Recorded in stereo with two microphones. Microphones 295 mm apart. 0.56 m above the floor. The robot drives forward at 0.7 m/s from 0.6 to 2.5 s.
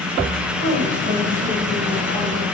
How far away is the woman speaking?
About 2.5 m.